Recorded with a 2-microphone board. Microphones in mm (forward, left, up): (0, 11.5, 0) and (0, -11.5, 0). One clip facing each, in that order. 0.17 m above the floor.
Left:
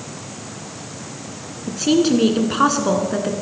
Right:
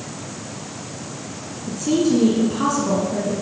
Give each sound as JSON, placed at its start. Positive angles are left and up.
{"t": 1.7, "sound": "a woman speaking", "side_deg": 50, "distance_m": 1.8}